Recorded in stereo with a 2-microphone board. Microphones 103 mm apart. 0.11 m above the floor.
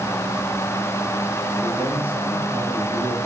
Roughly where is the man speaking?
Centre.